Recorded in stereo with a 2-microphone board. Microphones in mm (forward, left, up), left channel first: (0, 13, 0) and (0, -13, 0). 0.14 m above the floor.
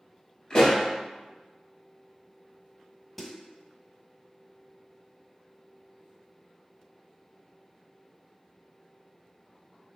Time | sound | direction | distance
0.5 | a pop | 30° left (ahead or behind) | 1.6 m
3.2 | a snare drum | 5° left (ahead or behind) | 0.8 m